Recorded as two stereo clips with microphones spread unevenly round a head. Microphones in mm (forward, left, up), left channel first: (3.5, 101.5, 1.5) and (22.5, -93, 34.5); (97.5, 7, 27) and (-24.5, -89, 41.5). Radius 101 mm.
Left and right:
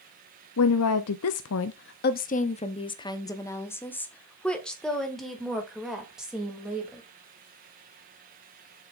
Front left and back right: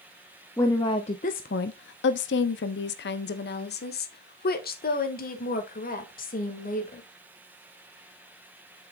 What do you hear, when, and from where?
0.6 s a woman speaking: 115° left, 0.7 m; by 7.0 s straight ahead, 3 m